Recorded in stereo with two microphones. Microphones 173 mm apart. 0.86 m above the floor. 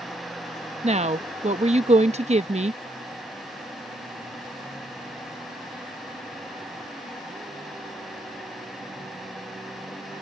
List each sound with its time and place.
0.8 s a woman speaking: 40° right (ahead or behind)